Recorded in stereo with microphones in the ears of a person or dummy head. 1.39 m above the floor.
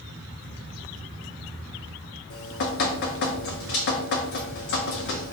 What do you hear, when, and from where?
2.3 s dripping: 50° left (ahead or behind), 0.7 m